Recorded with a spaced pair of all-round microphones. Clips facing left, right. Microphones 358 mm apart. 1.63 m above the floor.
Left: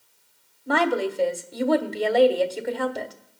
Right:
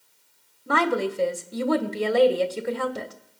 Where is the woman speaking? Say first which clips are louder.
Left 1 dB; 10° right (ahead or behind), 1.4 m.